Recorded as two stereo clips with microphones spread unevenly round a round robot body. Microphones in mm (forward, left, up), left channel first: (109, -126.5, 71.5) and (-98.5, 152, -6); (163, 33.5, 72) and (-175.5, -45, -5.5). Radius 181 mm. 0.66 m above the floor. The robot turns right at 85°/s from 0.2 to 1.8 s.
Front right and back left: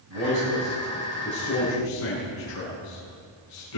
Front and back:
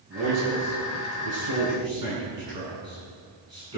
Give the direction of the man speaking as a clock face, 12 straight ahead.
8 o'clock.